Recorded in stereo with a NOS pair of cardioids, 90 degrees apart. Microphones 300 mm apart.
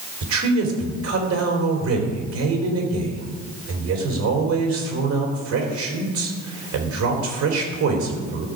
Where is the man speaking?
65° right, 4 m.